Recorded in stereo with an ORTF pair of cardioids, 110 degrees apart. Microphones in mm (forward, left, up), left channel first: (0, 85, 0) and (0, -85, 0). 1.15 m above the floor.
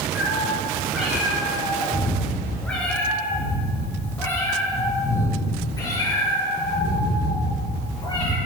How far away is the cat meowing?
About 5 m.